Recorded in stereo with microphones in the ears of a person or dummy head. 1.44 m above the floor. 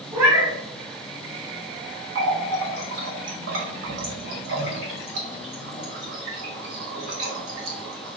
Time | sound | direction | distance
0.1 | a cat meowing | 20° right (ahead or behind) | 1.2 m
2.1 | a running tap | 65° right (ahead or behind) | 1.1 m